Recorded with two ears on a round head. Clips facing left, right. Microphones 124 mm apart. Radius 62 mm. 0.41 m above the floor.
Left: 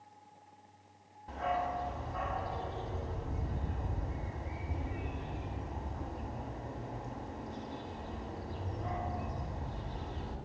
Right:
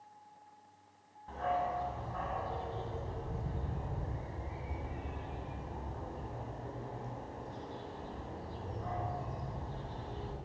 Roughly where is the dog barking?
Centre.